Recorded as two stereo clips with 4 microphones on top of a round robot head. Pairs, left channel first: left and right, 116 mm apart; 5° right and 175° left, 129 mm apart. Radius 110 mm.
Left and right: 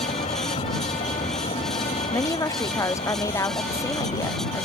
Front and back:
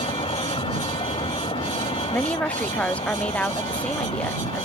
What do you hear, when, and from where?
0.0 s a vehicle: 45° left
2.1 s a woman speaking: 65° left